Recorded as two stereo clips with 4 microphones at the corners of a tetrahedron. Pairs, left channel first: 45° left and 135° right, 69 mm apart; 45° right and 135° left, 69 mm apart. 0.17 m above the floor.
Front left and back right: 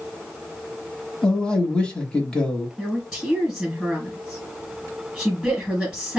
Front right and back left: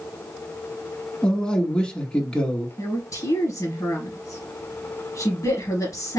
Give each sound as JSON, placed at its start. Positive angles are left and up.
{"t": 1.2, "sound": "a man speaking", "azimuth_deg": 5, "distance_m": 1.1}
{"t": 2.8, "sound": "a woman speaking", "azimuth_deg": -45, "distance_m": 2.5}